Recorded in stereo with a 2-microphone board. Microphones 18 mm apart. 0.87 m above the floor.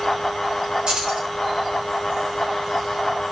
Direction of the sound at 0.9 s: 60° right (ahead or behind).